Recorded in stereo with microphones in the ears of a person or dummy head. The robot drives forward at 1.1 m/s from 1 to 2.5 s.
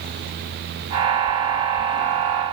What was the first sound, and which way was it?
Only background noise.